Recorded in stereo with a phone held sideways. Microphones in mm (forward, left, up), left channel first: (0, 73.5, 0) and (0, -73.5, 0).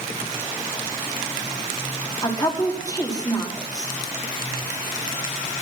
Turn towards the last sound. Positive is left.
turn(degrees=25)  # may be behind; listen again after turning